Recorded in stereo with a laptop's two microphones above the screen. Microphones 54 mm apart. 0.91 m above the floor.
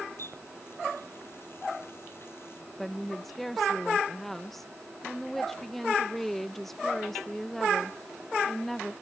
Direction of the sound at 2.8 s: Centre (ahead or behind).